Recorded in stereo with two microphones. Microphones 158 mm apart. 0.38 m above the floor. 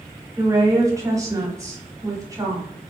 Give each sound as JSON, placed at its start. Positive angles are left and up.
{"t": 0.4, "sound": "a woman speaking", "side_deg": -20, "distance_m": 0.9}